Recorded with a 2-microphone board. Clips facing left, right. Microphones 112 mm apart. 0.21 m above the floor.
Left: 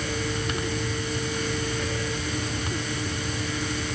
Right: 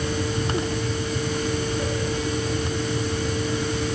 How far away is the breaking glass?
I don't hear breaking glass.